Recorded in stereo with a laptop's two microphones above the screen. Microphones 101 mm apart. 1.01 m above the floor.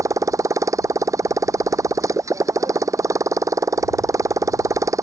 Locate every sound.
0.0 s a motorcycle: 30° right (ahead or behind)